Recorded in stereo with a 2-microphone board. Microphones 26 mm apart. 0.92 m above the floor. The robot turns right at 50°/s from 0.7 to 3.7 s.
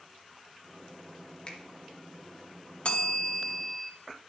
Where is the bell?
115° left, 0.8 m; by 3.9 s 155° left, 0.8 m.